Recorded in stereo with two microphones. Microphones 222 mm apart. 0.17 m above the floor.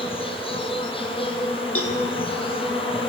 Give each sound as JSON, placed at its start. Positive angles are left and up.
{"t": 0.0, "sound": "an insect", "side_deg": 25, "distance_m": 1.9}
{"t": 1.8, "sound": "a cowbell", "side_deg": 80, "distance_m": 1.8}